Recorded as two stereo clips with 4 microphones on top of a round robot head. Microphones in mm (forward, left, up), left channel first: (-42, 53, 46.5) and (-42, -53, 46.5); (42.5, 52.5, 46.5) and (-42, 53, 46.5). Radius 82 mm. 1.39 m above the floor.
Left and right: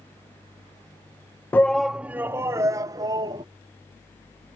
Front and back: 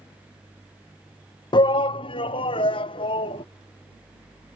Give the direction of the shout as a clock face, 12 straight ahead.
11 o'clock.